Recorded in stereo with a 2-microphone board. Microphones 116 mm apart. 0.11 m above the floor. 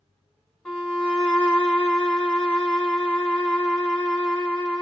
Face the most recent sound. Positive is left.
turn(degrees=5)  # may be behind; listen again after turning